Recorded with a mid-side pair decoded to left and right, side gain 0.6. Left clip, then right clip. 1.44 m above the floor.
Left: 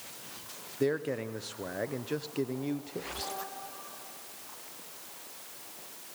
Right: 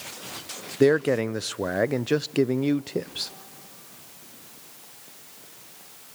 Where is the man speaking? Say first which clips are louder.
Right 11 dB; 50° right, 0.6 m.